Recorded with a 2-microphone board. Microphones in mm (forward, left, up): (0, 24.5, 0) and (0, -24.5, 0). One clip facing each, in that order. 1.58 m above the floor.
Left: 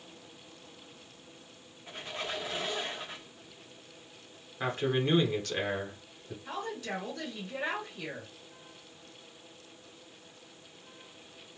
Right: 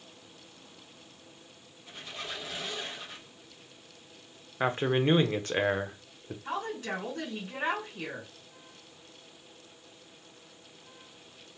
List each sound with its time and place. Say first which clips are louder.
1.9 s a squeak: left 3 dB; 30° left (ahead or behind), 0.9 m
4.6 s a man speaking: right 3 dB; 30° right (ahead or behind), 0.6 m
6.5 s a woman speaking: right 3 dB; 50° right (ahead or behind), 1.6 m